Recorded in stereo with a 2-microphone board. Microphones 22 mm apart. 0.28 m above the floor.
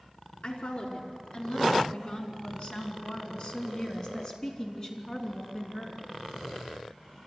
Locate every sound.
0.4 s a woman speaking: 70° left (ahead or behind), 4 m; by 6.1 s 20° left (ahead or behind), 4 m